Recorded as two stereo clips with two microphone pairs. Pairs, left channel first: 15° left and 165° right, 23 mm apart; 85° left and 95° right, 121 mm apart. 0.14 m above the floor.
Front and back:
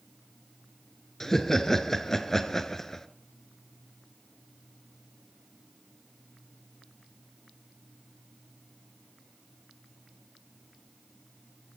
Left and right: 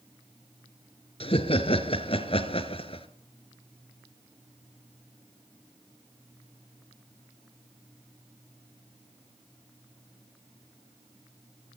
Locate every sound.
1.2 s laughter: 85° left, 1.8 m